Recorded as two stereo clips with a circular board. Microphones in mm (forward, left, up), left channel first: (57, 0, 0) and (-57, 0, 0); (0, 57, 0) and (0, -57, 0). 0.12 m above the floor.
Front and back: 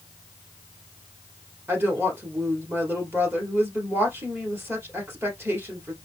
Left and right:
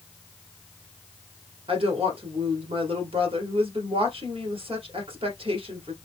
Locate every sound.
1.7 s a woman speaking: 110° right, 2 m